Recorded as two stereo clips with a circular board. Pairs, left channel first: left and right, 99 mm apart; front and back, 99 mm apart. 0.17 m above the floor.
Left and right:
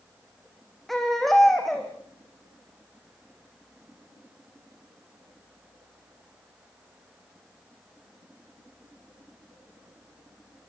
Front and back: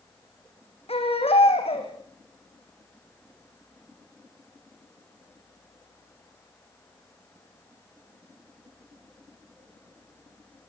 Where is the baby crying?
Straight ahead, 5 m.